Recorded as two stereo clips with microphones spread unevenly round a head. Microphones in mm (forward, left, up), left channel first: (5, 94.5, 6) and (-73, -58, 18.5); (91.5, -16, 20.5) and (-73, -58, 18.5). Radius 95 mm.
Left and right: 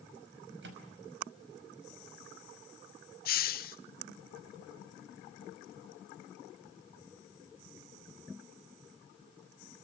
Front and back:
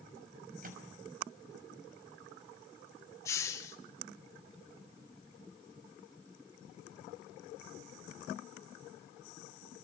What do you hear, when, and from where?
0.6 s a microwave: 130° right, 5.5 m
3.2 s a hiss: 90° left, 1.3 m